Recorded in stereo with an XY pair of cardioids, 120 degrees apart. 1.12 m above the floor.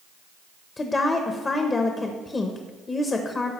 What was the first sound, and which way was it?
A woman speaking, 25° left.